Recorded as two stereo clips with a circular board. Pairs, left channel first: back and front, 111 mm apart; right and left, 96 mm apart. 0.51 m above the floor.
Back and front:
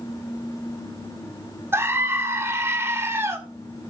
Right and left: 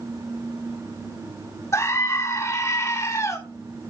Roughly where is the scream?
Ahead right.